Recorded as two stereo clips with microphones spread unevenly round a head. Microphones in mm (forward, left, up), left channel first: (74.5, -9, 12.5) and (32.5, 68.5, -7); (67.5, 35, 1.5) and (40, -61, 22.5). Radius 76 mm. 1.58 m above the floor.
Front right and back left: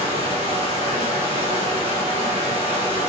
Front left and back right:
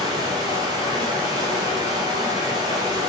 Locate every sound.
0.0 s running water: 135° left, 2.5 m